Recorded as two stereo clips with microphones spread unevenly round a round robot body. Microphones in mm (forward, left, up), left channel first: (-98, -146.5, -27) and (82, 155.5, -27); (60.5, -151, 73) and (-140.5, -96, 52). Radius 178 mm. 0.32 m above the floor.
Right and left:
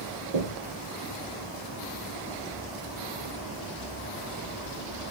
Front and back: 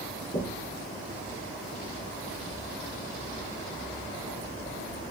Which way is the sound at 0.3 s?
50° left.